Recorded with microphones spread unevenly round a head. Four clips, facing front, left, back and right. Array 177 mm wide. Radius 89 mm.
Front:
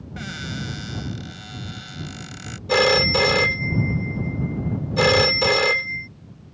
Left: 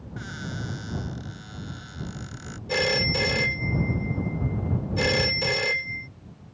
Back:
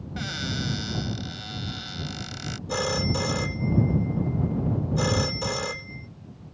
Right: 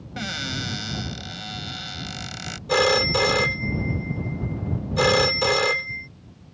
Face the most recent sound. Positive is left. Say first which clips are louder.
# right 6 dB, front 9 dB
turn(degrees=-25)